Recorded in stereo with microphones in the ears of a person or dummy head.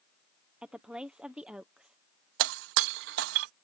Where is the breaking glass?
60° right (ahead or behind).